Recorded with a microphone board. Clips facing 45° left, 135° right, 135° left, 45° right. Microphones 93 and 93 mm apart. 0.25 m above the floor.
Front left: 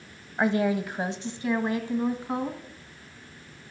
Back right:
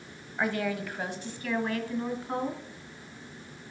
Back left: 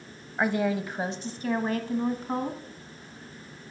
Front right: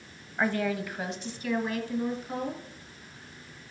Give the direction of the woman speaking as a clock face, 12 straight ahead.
10 o'clock.